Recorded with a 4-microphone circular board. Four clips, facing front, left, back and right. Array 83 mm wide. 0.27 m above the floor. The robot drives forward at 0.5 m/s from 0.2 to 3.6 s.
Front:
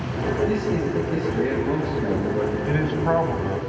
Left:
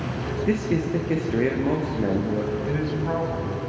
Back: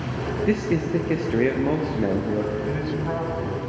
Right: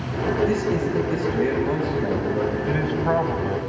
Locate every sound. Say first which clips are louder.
0.5 s a man speaking: right 1 dB, back 1 dB; 145° left, 4 m; by 2.5 s 155° left, 5 m
2.7 s a man speaking: right 4 dB, front 4 dB; 40° right, 2 m; by 3.6 s 55° right, 1.9 m